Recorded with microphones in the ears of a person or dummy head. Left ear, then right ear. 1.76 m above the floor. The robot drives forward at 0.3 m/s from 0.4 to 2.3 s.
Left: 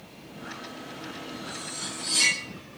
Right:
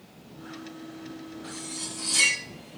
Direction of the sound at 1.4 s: 50° right (ahead or behind).